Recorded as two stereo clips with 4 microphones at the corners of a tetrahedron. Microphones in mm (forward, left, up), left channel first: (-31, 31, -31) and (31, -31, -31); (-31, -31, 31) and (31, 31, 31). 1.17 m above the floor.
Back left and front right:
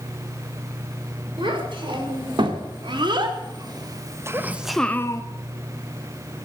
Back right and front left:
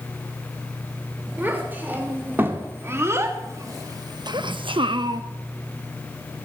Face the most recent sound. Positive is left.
turn(degrees=85)